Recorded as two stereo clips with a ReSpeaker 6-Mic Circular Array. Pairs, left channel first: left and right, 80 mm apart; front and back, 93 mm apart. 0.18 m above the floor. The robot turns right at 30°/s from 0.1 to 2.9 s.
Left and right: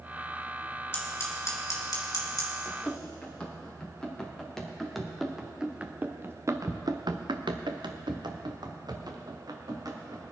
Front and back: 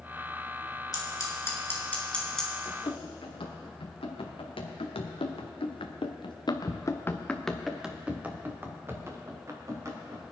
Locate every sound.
0.9 s scissors: 35° left, 2.5 m; by 2.5 s 85° left, 2.5 m
2.6 s running footsteps: 10° left, 4 m; by 10.2 s 125° right, 3 m